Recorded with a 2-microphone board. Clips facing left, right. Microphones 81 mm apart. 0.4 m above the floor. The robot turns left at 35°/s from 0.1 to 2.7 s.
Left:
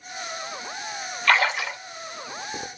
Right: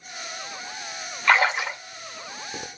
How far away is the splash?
About 1.0 m.